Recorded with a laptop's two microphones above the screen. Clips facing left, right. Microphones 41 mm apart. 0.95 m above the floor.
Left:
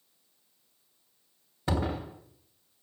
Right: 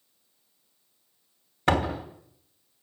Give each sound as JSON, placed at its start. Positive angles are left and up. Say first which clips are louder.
{"t": 1.7, "sound": "a door slam", "louder": "right 6 dB", "side_deg": -80, "distance_m": 3.0}